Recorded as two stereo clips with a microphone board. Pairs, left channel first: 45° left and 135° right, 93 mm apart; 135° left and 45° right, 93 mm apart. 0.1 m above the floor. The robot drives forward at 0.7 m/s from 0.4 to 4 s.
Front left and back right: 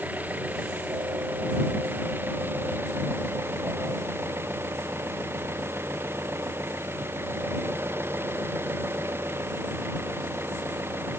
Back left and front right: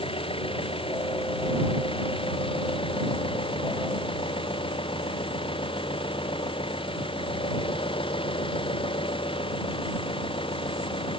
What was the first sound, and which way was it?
An engine running, 155° left.